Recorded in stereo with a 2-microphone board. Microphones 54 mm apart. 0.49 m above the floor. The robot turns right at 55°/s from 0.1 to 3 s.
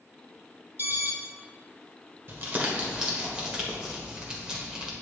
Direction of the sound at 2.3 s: 45° right (ahead or behind).